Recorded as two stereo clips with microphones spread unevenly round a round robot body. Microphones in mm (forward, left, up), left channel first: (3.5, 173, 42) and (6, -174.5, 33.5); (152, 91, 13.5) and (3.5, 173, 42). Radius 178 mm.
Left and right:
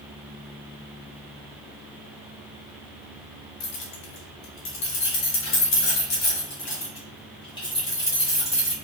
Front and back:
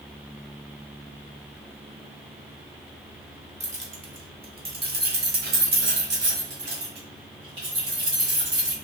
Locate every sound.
3.6 s keys jangling: 105° left, 1.7 m; by 8.7 s 175° left, 3 m